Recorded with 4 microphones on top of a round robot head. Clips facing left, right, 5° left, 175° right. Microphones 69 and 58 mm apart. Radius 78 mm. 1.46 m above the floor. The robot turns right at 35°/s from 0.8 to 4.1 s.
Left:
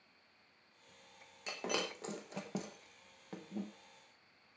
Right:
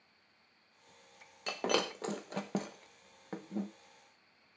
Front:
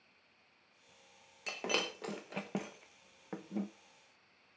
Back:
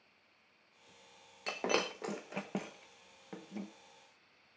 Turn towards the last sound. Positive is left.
turn(degrees=-30)